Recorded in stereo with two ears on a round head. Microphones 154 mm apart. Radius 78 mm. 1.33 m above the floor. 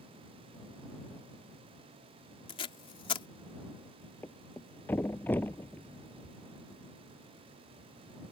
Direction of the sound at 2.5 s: 30° left (ahead or behind).